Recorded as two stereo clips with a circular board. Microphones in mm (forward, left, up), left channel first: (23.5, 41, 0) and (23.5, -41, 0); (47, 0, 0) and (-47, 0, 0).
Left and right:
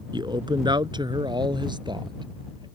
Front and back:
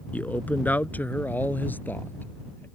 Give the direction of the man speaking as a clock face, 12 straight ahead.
2 o'clock.